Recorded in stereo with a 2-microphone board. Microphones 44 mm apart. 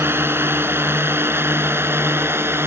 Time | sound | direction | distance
0.0 | a drone | 60° right (ahead or behind) | ?